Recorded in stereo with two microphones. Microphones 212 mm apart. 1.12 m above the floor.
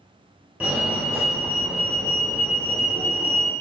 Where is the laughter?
No laughter in this recording.